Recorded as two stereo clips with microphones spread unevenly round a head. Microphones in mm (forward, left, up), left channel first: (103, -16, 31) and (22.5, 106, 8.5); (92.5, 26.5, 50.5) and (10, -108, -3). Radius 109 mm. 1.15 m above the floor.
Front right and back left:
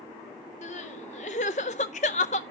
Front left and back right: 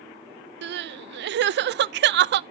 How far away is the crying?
About 0.5 m.